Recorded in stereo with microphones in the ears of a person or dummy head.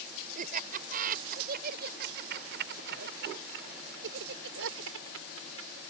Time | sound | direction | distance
0.3 | laughter | 50° right (ahead or behind) | ?